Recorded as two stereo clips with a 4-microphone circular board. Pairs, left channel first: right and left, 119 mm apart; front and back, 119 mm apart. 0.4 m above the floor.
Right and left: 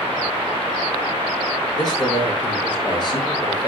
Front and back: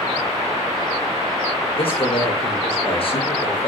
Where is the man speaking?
35° right, 7.5 m.